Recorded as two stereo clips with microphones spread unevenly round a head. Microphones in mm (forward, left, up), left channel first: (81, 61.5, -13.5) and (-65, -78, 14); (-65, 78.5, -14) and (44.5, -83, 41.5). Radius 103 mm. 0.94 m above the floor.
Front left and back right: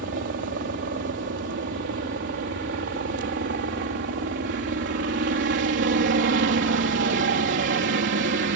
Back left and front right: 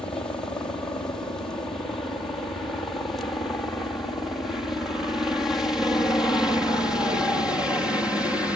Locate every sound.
0.0 s a helicopter: 165° right; by 8.6 s 155° right